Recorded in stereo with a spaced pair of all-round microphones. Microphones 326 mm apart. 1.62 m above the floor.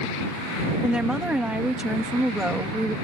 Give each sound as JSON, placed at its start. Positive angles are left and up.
{"t": 0.8, "sound": "a woman speaking", "side_deg": -5}